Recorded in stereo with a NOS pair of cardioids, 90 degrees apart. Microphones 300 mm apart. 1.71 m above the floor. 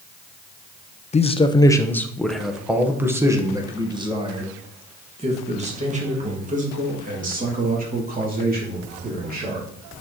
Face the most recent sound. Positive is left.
turn(degrees=-30)